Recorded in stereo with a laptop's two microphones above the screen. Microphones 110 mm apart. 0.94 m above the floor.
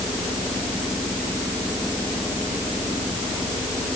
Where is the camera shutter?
I don't hear a camera shutter.